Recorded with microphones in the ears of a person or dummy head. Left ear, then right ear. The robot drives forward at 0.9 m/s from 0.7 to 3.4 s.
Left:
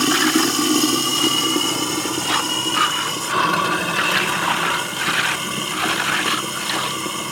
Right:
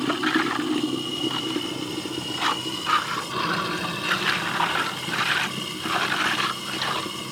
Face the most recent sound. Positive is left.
turn(degrees=35)  # may be behind; listen again after turning